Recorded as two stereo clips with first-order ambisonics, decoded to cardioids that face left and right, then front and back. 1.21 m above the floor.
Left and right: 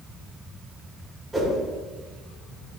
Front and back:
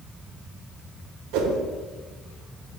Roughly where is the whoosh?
Behind.